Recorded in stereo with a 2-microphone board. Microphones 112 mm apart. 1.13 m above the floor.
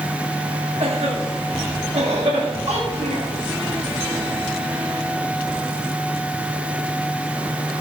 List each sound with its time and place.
0.8 s a cough: 75° right (ahead or behind), 7 m
2.7 s a child speaking: 75° right (ahead or behind), 6.5 m